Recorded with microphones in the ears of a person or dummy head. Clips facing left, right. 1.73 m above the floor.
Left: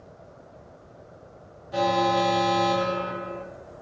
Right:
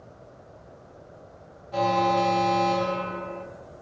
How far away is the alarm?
About 2.0 m.